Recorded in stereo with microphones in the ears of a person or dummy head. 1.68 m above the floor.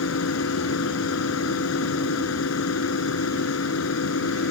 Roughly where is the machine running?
Left.